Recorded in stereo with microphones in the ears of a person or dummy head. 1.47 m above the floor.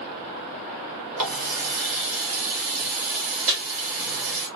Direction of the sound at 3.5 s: 35° right (ahead or behind).